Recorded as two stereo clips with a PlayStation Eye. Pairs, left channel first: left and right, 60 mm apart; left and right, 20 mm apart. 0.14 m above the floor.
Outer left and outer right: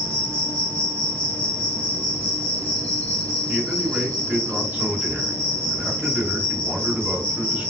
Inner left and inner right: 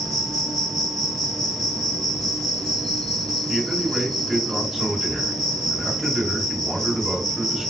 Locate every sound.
0.0 s an insect: 25° left (ahead or behind), 1.3 m
3.5 s a man speaking: 30° right (ahead or behind), 2.0 m